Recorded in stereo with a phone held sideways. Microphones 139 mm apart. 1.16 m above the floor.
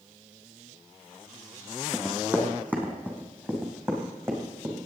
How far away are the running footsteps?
About 2.5 m.